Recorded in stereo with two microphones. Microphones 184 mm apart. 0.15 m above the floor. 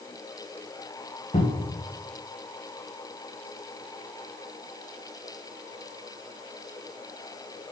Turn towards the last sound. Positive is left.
turn(degrees=40)  # may be behind; listen again after turning